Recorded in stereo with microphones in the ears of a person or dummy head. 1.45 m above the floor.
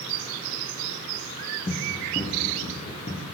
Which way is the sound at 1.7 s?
25° left (ahead or behind).